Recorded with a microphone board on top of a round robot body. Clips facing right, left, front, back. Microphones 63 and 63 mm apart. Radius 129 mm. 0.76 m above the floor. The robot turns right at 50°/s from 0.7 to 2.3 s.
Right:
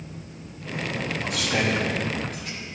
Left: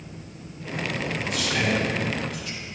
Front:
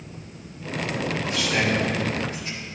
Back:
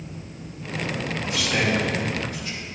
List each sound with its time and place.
1.2 s a man speaking: 110° right, 3 m; by 2.6 s 55° right, 3 m